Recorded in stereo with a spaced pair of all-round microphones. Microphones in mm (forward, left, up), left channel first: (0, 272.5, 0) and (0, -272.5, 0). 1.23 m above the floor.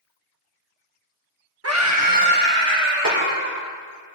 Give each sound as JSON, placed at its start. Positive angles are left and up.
{"t": 1.6, "sound": "a scream", "side_deg": -25, "distance_m": 1.4}
{"t": 3.0, "sound": "a snare drum", "side_deg": -65, "distance_m": 3.0}